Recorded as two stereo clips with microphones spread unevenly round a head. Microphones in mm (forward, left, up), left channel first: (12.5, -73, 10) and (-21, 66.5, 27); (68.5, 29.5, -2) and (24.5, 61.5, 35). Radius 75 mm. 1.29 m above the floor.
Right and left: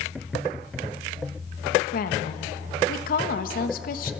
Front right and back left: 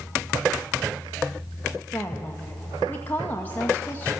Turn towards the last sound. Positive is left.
turn(degrees=-100)